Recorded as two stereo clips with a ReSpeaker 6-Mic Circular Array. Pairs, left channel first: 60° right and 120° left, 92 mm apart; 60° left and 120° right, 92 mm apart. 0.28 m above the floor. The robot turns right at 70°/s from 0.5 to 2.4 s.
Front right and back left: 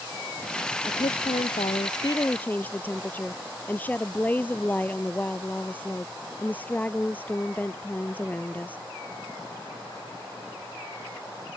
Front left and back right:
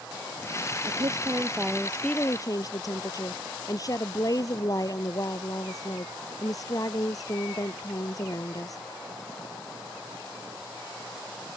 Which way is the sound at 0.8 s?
95° right.